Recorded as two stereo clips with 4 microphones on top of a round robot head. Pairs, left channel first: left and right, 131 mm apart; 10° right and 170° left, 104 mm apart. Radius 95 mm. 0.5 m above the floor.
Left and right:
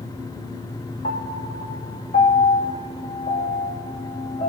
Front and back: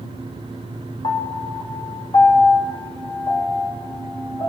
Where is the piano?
45° left, 1.6 m.